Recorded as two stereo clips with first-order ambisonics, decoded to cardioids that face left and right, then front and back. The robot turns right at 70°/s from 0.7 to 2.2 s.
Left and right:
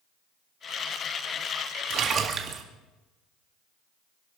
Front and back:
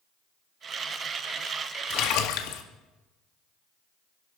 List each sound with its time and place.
1.9 s a splash: 45° right, 1.7 m; by 2.6 s 25° right, 1.7 m